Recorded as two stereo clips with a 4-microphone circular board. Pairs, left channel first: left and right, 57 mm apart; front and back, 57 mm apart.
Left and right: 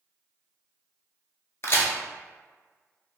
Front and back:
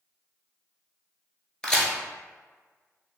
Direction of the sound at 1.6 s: 75° left.